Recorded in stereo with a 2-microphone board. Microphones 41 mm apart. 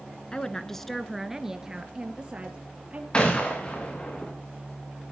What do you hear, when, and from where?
0.3 s a woman speaking: 20° left (ahead or behind), 1.6 m; by 3.0 s 35° right (ahead or behind), 3.5 m
3.1 s a gunshot: 25° left (ahead or behind), 5.5 m